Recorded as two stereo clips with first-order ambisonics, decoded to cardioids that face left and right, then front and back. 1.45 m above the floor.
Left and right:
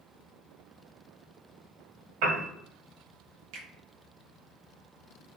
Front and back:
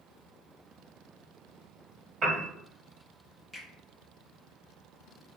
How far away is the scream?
No scream in this recording.